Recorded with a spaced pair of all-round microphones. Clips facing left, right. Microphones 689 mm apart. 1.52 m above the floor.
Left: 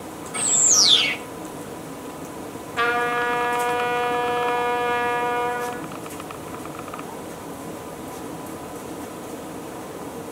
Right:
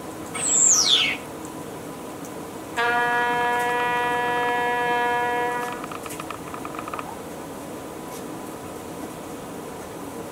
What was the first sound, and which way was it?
A bird, 65° left (ahead or behind).